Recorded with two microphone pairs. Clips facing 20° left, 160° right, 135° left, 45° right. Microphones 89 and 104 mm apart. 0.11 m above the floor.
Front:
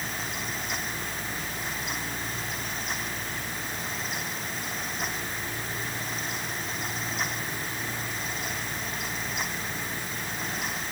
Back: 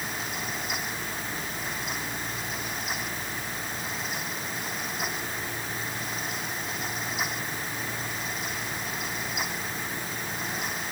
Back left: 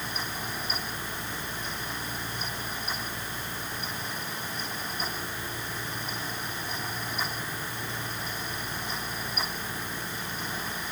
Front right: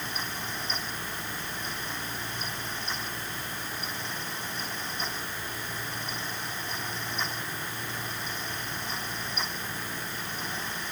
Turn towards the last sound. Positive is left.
No sound to turn to.